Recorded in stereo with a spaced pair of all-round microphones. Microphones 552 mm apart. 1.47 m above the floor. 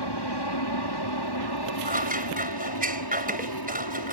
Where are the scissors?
15° right (ahead or behind).